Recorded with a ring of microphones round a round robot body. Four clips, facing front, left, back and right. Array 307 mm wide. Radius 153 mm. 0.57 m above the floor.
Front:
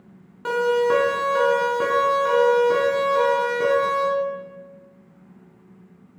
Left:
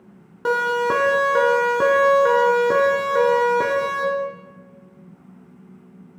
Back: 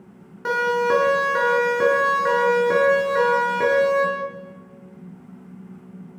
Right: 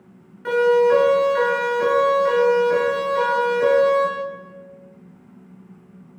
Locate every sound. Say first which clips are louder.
0.5 s a siren: right 5 dB, front 1 dB; 95° left, 5 m; by 4.0 s 105° left, 7 m